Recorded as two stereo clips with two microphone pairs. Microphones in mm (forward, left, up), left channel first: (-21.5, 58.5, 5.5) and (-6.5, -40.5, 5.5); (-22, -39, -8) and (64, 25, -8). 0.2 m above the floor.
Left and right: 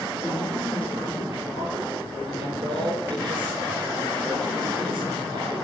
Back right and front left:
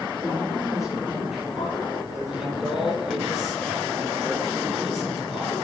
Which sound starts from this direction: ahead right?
A man speaking, at 2.4 s.